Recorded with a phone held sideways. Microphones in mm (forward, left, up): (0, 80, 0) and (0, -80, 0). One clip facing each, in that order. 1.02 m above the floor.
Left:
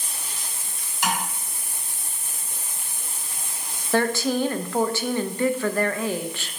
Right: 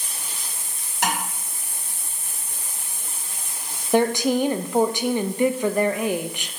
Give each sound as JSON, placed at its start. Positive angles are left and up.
{"t": 1.0, "sound": "tapping", "side_deg": -85, "distance_m": 3.0}
{"t": 3.9, "sound": "a woman speaking", "side_deg": -20, "distance_m": 0.6}